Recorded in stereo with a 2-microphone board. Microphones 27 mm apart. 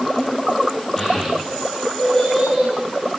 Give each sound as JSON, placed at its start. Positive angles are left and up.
{"t": 1.0, "sound": "a child speaking", "side_deg": 5, "distance_m": 7.0}